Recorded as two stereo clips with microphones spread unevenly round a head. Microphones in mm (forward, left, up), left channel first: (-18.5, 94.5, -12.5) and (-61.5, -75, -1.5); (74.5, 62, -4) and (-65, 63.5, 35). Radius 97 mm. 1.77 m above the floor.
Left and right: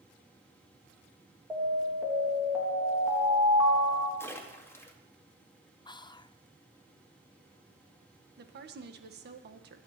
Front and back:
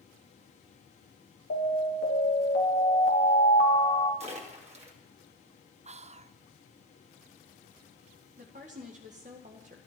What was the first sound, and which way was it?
An alarm, 20° right.